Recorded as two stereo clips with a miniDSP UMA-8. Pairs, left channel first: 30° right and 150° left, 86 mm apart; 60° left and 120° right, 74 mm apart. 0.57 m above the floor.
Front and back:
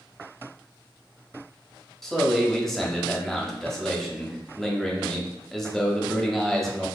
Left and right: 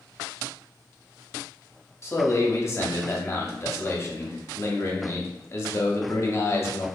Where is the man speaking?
50° left, 0.9 m.